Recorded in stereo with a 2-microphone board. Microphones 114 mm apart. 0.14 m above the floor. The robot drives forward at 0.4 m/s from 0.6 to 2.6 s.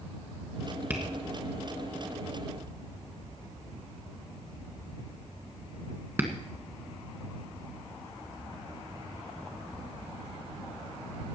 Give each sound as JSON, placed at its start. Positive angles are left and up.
{"t": 0.9, "sound": "tapping", "side_deg": -15, "distance_m": 2.0}